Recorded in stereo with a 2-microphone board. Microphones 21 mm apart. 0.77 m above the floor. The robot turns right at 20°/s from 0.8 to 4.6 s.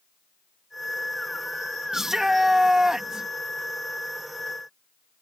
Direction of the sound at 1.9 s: 20° right (ahead or behind).